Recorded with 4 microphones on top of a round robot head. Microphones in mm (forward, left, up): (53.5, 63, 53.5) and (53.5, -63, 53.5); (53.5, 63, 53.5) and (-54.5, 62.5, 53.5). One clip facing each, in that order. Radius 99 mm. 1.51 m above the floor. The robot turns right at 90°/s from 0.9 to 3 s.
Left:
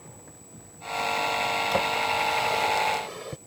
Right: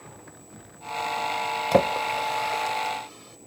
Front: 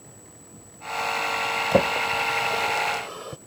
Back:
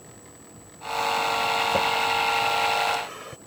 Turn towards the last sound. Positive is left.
turn(degrees=65)